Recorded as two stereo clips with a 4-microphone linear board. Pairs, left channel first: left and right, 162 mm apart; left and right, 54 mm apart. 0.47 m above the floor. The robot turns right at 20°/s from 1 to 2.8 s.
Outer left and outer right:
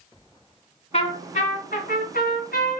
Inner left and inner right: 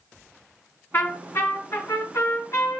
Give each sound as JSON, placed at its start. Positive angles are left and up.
{"t": 0.9, "sound": "a trumpet", "azimuth_deg": 45, "distance_m": 1.6}